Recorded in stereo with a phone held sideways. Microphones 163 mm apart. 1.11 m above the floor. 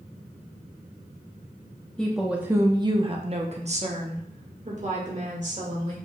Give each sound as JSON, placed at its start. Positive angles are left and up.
{"t": 2.0, "sound": "a woman speaking", "side_deg": 5, "distance_m": 0.7}